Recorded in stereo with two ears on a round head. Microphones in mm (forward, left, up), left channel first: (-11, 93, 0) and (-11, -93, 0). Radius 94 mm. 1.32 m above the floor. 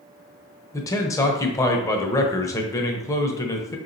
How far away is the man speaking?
About 0.6 m.